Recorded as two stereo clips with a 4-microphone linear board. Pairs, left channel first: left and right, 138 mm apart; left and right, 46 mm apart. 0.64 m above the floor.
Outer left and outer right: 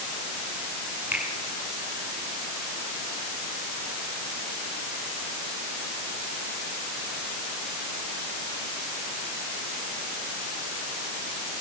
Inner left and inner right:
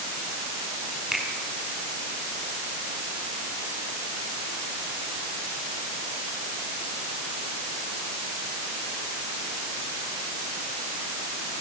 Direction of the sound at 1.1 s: 10° right (ahead or behind).